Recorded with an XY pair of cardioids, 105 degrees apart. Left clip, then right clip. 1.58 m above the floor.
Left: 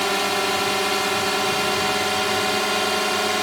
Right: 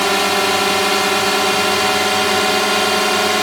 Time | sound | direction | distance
0.0 | a drone | 40° right | ?